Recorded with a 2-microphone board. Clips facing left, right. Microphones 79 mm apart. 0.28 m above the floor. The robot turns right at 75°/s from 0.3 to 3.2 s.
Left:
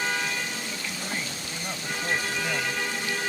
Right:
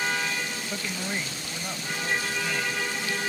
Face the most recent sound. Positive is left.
turn(degrees=120)